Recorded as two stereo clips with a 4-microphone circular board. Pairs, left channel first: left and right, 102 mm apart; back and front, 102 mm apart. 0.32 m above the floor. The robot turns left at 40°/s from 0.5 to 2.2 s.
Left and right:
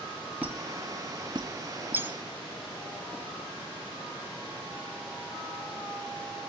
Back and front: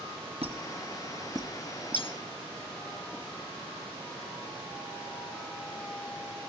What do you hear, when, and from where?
0.4 s a squeak: 15° right, 2 m; by 2.1 s 80° right, 2 m
2.0 s cutlery clinking: 155° right, 1.0 m; by 2.2 s 165° right, 1.0 m